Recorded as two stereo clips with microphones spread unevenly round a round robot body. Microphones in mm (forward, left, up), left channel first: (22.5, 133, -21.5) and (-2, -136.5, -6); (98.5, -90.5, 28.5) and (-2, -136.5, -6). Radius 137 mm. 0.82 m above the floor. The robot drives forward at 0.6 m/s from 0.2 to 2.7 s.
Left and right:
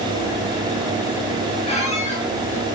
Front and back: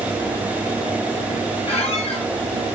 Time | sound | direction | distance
1.7 | a squeak | 15° left | 2.5 m